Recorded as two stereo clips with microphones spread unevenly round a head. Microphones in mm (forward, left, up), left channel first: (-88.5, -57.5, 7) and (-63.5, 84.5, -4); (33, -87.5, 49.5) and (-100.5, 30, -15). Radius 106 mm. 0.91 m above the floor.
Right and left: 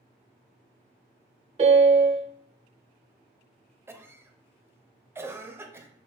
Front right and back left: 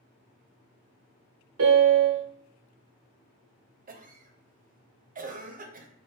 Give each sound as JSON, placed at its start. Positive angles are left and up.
{"t": 1.6, "sound": "a piano", "azimuth_deg": 120, "distance_m": 0.7}
{"t": 3.9, "sound": "a cough", "azimuth_deg": 150, "distance_m": 0.6}